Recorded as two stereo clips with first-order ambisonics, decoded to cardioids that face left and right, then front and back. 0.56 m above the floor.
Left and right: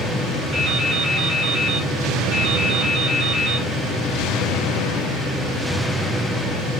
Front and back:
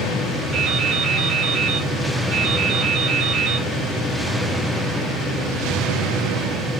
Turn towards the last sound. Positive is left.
turn(degrees=-140)